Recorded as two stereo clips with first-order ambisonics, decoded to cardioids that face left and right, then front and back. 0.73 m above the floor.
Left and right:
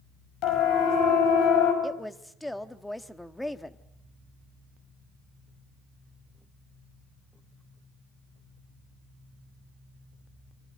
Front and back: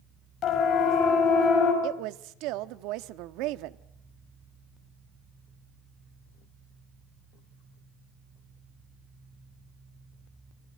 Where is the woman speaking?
175° left, 1.0 m.